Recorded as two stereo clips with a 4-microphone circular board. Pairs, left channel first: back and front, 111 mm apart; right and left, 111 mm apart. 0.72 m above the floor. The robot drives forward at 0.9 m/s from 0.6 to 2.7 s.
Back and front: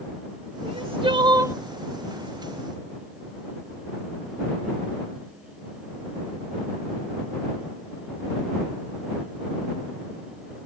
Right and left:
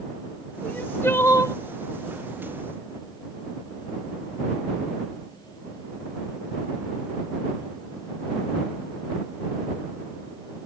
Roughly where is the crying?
Ahead.